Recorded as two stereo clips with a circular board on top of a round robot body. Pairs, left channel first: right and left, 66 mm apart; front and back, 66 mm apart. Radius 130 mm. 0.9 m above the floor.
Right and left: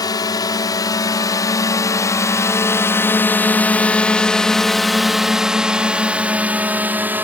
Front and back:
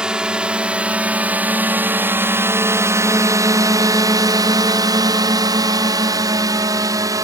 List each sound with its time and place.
0.0 s a drone: 100° right; by 7.2 s 150° left